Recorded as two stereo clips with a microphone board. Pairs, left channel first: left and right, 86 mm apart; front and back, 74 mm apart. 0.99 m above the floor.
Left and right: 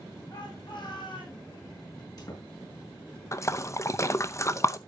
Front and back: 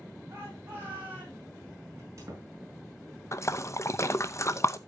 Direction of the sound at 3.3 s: 40° left.